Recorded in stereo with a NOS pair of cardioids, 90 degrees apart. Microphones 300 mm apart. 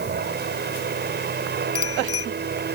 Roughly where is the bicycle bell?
Ahead left.